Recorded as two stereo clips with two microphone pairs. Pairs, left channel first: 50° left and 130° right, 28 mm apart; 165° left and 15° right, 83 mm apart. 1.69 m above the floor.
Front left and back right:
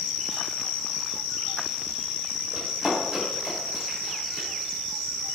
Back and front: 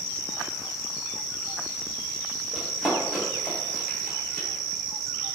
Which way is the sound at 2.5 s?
80° right.